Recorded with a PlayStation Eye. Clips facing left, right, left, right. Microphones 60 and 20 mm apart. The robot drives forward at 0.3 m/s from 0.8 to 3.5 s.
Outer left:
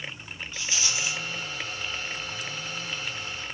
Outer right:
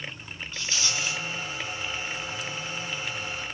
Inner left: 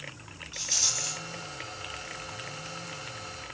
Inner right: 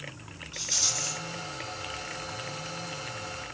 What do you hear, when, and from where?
0.5 s a rattle: 15° left (ahead or behind), 1.3 m